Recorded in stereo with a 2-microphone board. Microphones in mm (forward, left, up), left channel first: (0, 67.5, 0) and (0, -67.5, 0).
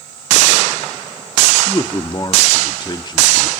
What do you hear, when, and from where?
1.7 s a man speaking: 30° left (ahead or behind), 1.0 m